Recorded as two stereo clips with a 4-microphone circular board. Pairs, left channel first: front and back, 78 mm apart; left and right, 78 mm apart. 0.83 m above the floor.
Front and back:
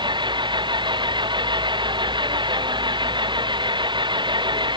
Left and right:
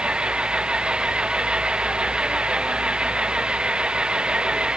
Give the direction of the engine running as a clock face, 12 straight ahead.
6 o'clock.